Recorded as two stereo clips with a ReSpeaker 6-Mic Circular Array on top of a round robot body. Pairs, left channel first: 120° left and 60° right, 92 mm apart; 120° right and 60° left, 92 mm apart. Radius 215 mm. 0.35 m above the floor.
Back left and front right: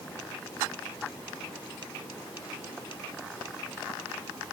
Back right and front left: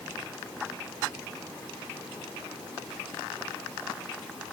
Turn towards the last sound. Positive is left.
No sound to turn to.